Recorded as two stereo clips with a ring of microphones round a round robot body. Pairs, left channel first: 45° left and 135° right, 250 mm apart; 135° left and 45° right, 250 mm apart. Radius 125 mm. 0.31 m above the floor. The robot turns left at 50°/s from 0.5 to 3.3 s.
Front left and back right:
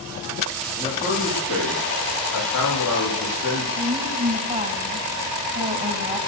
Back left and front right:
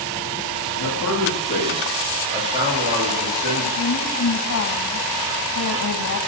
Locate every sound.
0.8 s a man speaking: 115° left, 9.5 m; by 3.7 s 10° right, 9.5 m
3.8 s a woman speaking: 165° left, 2.5 m